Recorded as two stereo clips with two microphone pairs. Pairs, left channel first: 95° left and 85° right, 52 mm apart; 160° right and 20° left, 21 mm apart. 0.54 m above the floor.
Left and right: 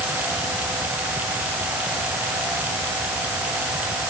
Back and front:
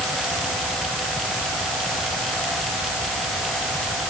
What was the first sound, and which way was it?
Only background noise.